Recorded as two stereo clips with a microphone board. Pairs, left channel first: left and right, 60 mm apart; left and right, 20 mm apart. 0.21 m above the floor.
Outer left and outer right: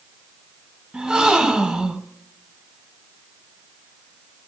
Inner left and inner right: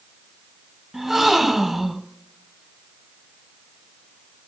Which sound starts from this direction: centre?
A gasp, at 0.9 s.